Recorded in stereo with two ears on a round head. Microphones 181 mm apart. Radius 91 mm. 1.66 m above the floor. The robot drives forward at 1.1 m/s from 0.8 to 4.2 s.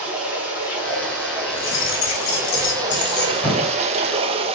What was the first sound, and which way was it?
Running water, 10° right (ahead or behind).